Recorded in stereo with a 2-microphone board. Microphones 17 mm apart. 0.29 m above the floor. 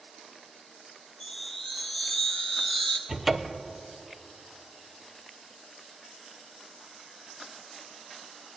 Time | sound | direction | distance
1.2 | a chime | 50° left (ahead or behind) | 1.2 m
3.1 | a cupboard door | 15° right (ahead or behind) | 0.5 m